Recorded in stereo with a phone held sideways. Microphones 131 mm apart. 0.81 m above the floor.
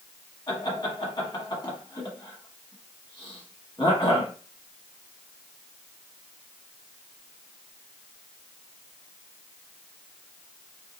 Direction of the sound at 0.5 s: 30° left (ahead or behind).